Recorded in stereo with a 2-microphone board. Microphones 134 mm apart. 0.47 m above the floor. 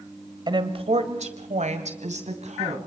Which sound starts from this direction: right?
A woman speaking, at 0.5 s.